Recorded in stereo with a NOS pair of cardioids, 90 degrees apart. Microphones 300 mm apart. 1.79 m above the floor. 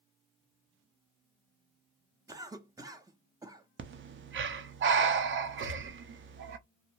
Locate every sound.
2.3 s a cough: 10° right, 0.6 m
3.8 s breathing: 40° right, 0.5 m
5.6 s a gunshot: 45° right, 0.9 m